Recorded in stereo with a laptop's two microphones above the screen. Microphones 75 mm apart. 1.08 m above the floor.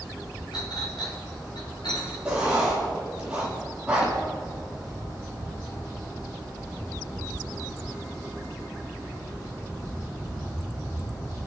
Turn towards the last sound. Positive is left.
turn(degrees=-10)  # may be behind; listen again after turning